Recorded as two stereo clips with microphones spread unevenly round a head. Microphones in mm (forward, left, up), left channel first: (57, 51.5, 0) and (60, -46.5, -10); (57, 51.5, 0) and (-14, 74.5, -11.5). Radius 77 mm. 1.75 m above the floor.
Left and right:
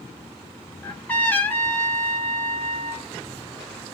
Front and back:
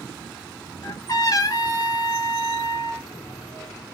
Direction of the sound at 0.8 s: 20° left.